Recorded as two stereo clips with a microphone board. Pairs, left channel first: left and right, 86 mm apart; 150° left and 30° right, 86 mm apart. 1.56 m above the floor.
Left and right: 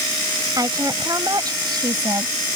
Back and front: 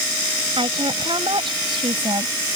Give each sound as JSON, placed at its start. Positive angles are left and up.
{"t": 0.6, "sound": "a woman speaking", "azimuth_deg": -45}